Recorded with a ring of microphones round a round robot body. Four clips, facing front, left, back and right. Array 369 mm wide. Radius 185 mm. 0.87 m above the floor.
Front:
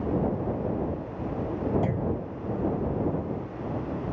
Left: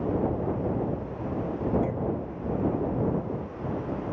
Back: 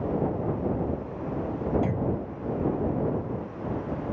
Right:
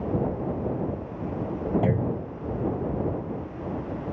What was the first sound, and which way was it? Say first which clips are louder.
A clunk: right 3 dB, back 1 dB; 95° right.